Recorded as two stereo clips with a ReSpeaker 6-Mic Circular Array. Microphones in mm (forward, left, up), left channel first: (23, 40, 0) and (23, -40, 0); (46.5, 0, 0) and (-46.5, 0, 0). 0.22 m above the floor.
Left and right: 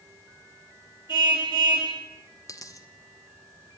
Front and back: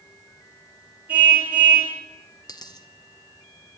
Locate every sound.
1.1 s a car horn: 105° left, 9.5 m
2.5 s a dropped coin: 45° left, 1.6 m